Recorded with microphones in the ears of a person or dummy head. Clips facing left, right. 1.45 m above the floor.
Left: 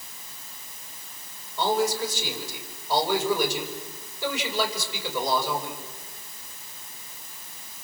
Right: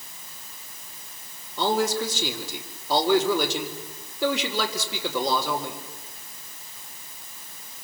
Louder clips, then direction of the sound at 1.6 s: Right 1 dB; 60° right (ahead or behind).